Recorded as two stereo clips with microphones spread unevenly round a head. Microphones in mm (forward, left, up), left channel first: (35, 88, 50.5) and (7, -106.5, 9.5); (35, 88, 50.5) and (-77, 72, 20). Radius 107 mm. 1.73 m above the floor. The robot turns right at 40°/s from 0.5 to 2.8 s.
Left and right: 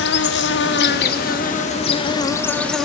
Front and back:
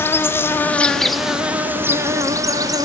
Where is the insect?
90° left, 0.8 m; by 2.9 s straight behind, 0.8 m.